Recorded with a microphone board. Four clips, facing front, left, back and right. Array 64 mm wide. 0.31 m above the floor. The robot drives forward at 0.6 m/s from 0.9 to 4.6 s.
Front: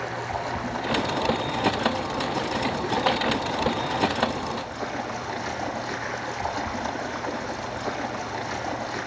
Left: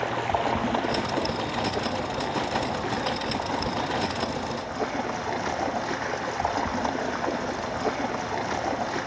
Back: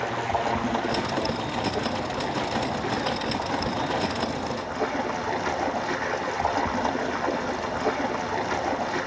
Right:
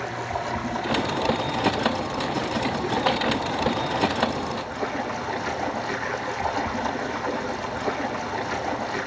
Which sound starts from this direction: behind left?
Running water, at 0.0 s.